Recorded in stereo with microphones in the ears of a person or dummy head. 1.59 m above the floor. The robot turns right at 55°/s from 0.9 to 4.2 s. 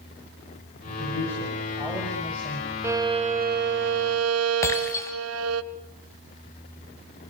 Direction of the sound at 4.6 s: 15° left (ahead or behind).